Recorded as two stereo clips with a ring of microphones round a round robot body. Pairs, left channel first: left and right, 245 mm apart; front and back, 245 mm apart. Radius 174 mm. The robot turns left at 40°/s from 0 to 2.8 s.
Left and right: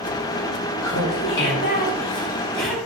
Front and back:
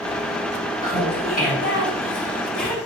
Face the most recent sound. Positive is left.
turn(degrees=-5)